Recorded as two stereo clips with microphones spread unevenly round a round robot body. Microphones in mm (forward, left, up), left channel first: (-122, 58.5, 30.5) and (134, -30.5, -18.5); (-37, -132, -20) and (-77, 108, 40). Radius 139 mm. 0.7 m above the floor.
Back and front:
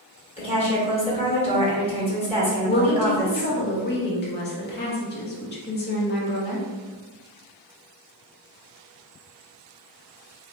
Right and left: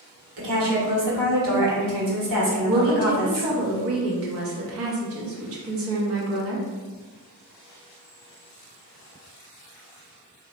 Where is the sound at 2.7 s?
110° left, 1.2 m.